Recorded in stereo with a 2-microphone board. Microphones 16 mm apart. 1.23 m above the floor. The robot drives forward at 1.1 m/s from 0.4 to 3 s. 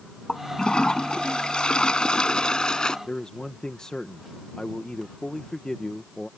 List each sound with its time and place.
0.3 s a toilet flushing: 75° left (ahead or behind); by 3.0 s 65° left (ahead or behind)
3.1 s a man speaking: 60° left (ahead or behind)